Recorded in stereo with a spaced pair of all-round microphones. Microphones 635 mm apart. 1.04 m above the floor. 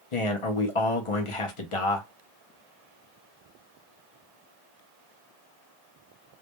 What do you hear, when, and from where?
0.1 s a man speaking: 55° left (ahead or behind), 0.7 m